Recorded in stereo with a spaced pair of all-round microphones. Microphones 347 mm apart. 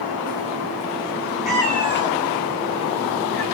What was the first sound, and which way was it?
A cat meowing, centre (ahead or behind).